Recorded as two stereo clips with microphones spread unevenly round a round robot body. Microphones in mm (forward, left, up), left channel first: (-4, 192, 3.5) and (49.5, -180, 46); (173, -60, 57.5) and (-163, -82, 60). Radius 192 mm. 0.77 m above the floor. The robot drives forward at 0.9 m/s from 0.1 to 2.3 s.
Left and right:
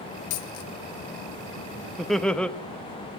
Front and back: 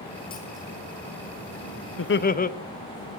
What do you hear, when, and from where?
0.3 s a dropped coin: 80° left, 1.1 m; by 0.7 s 105° left, 1.1 m
2.0 s laughter: 15° left, 1.1 m; by 2.5 s 25° left, 1.0 m